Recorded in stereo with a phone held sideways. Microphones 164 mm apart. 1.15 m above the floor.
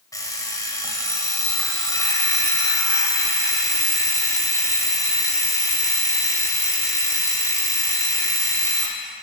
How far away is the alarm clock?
About 2 m.